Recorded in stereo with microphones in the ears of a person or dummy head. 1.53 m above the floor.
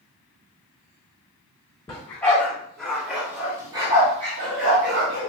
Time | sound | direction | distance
1.9 | a dog barking | 10° left (ahead or behind) | 1.5 m